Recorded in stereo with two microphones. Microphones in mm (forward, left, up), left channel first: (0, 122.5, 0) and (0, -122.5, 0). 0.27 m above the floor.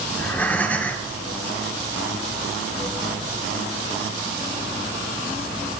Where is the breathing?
5° left (ahead or behind), 2.5 m.